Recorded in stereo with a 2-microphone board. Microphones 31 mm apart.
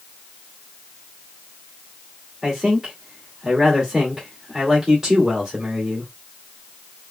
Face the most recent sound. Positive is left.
turn(degrees=-10)  # may be behind; listen again after turning